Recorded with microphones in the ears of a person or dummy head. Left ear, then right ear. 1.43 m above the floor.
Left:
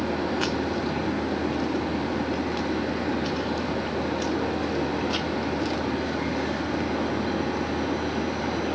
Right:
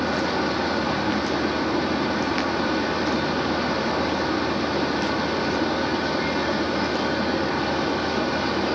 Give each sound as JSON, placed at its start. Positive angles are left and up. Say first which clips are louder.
{"t": 0.0, "sound": "a machine running", "louder": "right 3 dB", "side_deg": -55, "distance_m": 1.5}